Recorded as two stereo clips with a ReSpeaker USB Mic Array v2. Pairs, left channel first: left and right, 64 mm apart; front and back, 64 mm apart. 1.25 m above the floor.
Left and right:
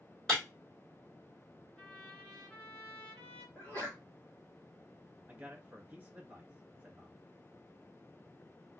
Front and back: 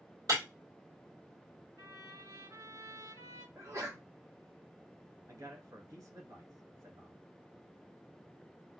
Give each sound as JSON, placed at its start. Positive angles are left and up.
{"t": 0.3, "sound": "breaking glass", "azimuth_deg": 175, "distance_m": 2.5}
{"t": 1.8, "sound": "a trumpet", "azimuth_deg": 170, "distance_m": 2.5}
{"t": 3.5, "sound": "a sneeze", "azimuth_deg": 145, "distance_m": 1.9}
{"t": 5.3, "sound": "a man speaking", "azimuth_deg": -155, "distance_m": 1.4}